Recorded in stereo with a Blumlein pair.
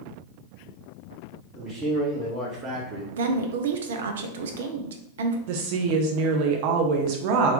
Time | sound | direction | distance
1.6 | a man speaking | 25° right | 1.6 m
3.1 | a woman speaking | 60° right | 0.6 m
5.5 | a woman speaking | 45° right | 0.6 m